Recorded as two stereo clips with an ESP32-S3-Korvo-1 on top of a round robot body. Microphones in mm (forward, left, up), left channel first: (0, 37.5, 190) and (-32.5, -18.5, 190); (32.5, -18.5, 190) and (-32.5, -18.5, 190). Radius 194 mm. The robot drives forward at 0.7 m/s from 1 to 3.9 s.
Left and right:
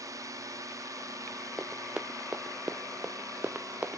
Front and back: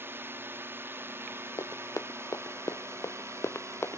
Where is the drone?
135° right; by 4.0 s 140° right.